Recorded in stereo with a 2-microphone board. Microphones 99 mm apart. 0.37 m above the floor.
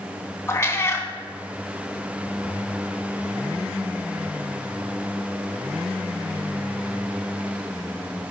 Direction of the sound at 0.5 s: 25° left (ahead or behind).